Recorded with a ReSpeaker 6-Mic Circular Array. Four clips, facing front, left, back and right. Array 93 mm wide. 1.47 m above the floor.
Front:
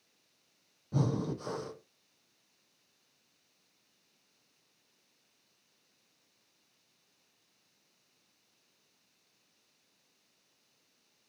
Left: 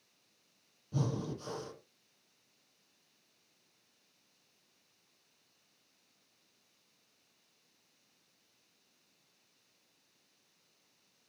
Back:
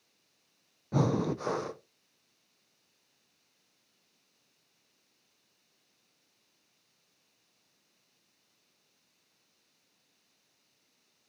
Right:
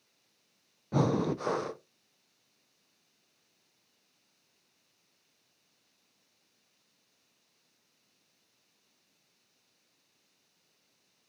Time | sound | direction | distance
0.9 | breathing | 120° right | 0.6 m